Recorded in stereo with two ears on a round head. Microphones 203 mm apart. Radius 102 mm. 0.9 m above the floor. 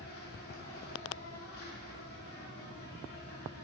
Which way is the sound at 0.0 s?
45° left (ahead or behind).